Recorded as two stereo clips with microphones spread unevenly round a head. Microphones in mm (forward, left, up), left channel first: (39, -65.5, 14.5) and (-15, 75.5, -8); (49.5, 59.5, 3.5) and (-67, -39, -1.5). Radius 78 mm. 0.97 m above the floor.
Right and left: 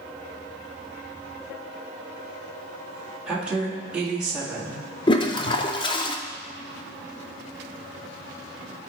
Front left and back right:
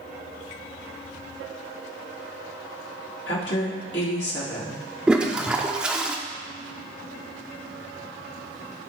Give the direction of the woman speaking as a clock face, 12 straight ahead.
11 o'clock.